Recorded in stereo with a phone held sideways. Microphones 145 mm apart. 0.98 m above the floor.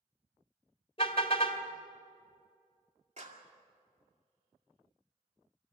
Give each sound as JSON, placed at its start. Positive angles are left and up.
{"t": 1.0, "sound": "a car horn", "side_deg": 40, "distance_m": 2.0}
{"t": 3.2, "sound": "a clap", "side_deg": -50, "distance_m": 2.0}